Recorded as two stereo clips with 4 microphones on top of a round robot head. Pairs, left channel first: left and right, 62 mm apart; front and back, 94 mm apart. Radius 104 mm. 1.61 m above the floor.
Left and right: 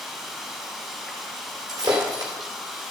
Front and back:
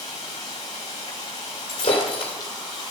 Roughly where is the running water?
Ahead.